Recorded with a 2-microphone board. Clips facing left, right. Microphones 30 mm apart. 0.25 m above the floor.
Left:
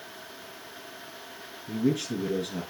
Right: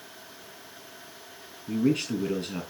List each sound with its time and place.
1.7 s a man speaking: 70° right (ahead or behind), 6 m